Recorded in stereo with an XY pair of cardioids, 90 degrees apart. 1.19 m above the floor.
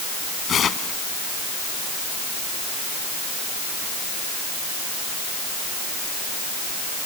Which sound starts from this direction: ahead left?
Tearing paper, at 0.5 s.